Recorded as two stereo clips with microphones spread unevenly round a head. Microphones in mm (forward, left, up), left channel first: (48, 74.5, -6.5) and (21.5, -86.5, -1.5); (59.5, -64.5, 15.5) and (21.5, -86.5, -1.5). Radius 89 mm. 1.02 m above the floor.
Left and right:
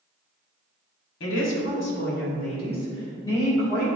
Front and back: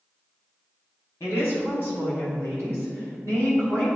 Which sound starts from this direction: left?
A woman speaking, at 1.2 s.